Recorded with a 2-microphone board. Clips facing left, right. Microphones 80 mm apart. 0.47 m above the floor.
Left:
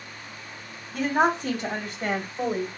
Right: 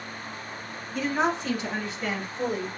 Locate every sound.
0.9 s a woman speaking: 65° left (ahead or behind), 2.5 m; by 2.7 s 50° left (ahead or behind), 1.7 m